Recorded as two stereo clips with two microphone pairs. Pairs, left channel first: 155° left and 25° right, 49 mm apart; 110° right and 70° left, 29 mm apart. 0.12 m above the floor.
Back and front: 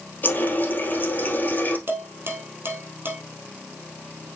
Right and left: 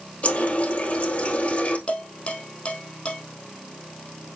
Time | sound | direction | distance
0.2 | a running tap | 150° right | 2 m
1.9 | dishes clattering | 65° right | 3 m